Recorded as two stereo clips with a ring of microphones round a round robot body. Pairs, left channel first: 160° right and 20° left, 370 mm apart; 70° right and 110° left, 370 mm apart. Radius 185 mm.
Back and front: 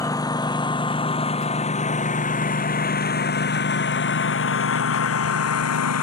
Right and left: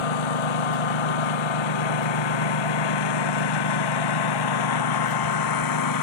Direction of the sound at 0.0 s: 75° right.